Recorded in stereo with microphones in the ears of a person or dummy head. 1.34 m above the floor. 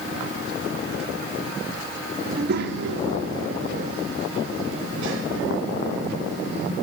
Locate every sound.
2.2 s a child speaking: 55° right (ahead or behind), 2 m; by 6.7 s 65° right (ahead or behind), 6.5 m